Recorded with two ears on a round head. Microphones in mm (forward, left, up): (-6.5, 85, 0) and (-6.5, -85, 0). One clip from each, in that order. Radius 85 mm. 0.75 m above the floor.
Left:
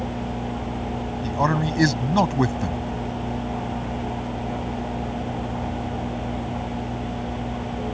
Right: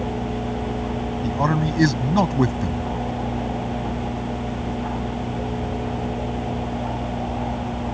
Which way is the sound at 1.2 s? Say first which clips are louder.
Left 1 dB; 15° left (ahead or behind).